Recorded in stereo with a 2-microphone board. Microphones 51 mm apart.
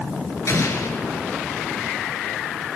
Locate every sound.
0.5 s an explosion: 65° left (ahead or behind), 3 m